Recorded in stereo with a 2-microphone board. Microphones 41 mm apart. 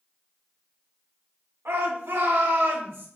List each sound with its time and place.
1.6 s a shout: 75° right (ahead or behind), 3.5 m; by 3.1 s 70° right (ahead or behind), 4.5 m